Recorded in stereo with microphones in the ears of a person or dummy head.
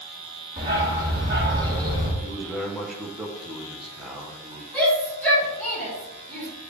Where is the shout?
10° left (ahead or behind), 2 m.